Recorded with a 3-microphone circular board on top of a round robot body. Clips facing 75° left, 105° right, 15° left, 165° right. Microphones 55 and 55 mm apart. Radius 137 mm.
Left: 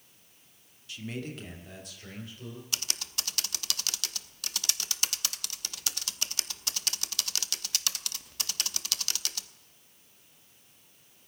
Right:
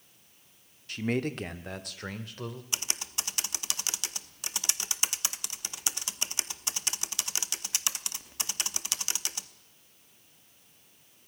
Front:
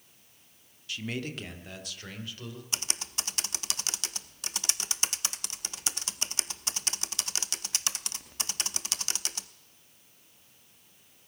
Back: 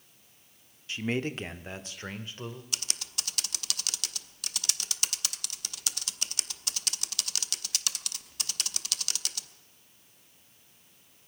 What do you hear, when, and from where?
0.9 s a man speaking: 115° right, 1.3 m; by 2.6 s 110° right, 2.5 m
2.7 s typing on a keyboard: 40° right, 0.8 m